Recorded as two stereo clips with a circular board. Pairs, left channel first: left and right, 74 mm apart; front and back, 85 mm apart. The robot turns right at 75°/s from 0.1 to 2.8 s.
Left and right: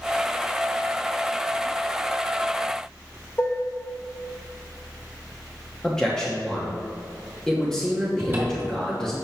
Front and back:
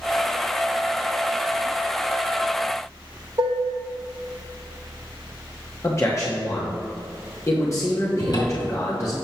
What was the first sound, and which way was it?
Dishes clattering, 145° left.